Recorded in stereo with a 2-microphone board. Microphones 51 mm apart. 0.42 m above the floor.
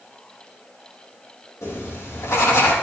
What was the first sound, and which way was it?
Writing, 80° left.